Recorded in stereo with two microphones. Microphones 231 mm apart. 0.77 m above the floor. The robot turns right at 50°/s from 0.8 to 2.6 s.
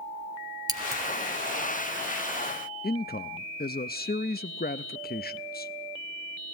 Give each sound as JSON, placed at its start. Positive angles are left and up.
{"t": 0.7, "sound": "scissors", "side_deg": -15, "distance_m": 1.7}
{"t": 2.8, "sound": "a man speaking", "side_deg": 40, "distance_m": 0.5}